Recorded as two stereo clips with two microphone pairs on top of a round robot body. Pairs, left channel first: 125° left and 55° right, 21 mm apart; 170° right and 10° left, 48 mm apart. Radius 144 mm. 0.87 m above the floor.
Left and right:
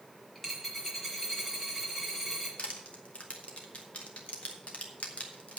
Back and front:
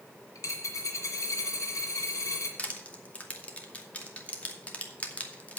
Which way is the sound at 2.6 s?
130° left.